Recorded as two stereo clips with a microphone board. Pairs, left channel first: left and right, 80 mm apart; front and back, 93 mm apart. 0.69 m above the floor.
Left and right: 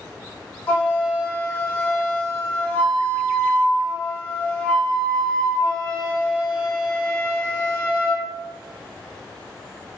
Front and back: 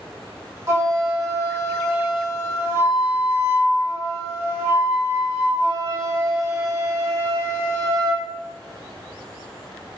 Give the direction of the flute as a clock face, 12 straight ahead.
7 o'clock.